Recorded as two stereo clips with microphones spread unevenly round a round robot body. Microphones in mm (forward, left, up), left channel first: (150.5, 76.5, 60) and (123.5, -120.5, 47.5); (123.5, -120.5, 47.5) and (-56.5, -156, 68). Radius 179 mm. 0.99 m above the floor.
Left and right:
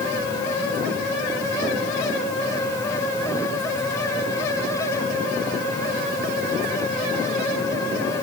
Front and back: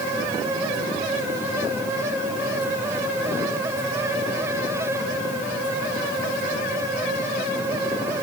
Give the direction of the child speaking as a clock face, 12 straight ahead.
No child speaking in this recording.